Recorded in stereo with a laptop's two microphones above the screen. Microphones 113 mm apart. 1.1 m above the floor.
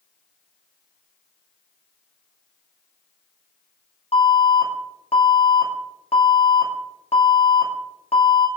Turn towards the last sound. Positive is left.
turn(degrees=60)  # may be behind; listen again after turning